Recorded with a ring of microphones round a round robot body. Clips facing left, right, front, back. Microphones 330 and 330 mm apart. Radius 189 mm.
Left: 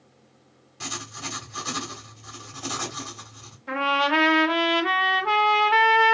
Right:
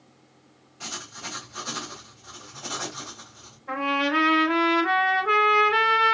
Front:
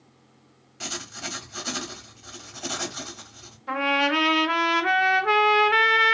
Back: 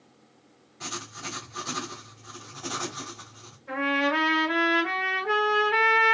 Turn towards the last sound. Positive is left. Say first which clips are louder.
# right 1 dB, front 1 dB
turn(degrees=45)